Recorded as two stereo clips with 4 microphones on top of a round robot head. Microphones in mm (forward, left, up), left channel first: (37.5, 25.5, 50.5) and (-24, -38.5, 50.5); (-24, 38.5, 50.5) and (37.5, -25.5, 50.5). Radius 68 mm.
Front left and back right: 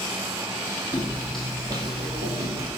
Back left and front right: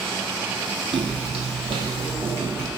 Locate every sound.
0.9 s footsteps: 5° right, 1.0 m; by 2.7 s 125° right, 1.6 m